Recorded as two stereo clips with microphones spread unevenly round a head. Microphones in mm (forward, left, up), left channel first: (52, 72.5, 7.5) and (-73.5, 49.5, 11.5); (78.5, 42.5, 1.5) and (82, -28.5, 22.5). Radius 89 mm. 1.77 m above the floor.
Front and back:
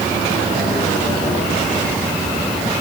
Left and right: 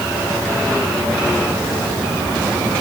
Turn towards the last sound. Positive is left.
No sound to turn to.